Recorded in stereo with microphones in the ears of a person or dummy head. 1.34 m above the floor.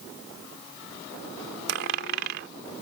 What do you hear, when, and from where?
1.7 s a dropped coin: 65° right (ahead or behind)